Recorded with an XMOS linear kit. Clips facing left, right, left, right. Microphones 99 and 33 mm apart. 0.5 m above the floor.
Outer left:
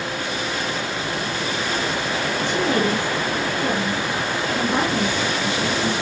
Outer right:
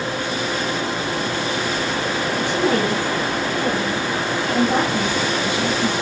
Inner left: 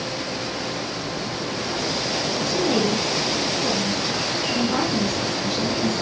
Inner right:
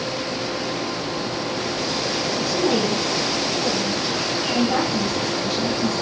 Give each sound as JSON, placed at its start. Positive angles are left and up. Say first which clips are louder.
{"t": 2.4, "sound": "a woman speaking", "louder": "outer right 2 dB, inner right 1 dB", "side_deg": -50, "distance_m": 8.0}